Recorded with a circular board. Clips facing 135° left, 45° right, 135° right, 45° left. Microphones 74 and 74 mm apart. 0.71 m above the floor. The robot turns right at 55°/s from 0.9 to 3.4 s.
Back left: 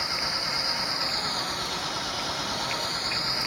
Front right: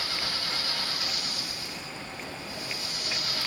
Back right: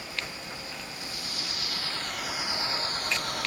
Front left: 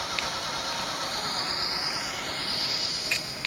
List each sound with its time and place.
0.0 s an engine running: 65° left; by 3.5 s 160° right